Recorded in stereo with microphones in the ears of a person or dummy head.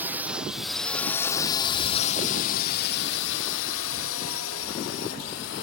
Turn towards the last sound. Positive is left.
turn(degrees=70)  # may be behind; listen again after turning